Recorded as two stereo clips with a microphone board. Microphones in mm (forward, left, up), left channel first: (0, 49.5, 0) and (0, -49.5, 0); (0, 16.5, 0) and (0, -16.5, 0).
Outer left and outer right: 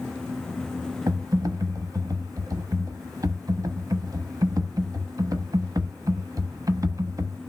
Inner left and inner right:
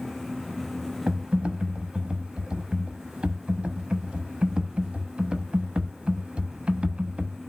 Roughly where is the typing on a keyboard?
Right.